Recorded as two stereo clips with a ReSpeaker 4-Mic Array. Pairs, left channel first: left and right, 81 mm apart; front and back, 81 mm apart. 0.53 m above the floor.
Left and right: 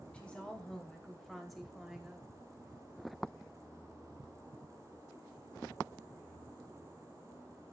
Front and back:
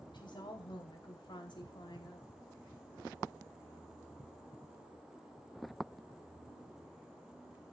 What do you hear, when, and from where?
0.1 s a woman speaking: 15° left, 3 m; by 2.3 s 10° right, 2.5 m